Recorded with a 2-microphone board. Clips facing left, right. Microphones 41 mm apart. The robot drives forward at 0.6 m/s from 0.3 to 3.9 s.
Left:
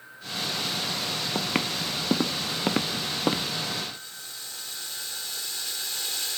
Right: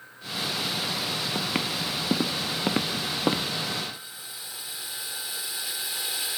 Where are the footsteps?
15° left (ahead or behind); by 3.5 s 5° right (ahead or behind).